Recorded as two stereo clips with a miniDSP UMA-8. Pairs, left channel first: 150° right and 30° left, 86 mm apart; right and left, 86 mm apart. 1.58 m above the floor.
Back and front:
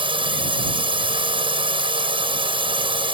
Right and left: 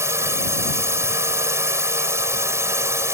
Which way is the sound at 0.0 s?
30° left.